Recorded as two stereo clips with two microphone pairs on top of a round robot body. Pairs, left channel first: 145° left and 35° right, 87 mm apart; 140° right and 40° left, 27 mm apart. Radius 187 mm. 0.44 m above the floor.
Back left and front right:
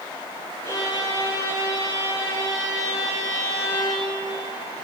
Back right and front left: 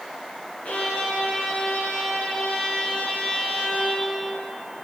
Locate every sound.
0.7 s a violin: 160° right, 2 m